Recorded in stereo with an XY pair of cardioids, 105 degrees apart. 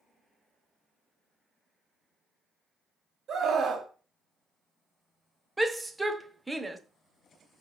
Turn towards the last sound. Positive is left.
turn(degrees=-10)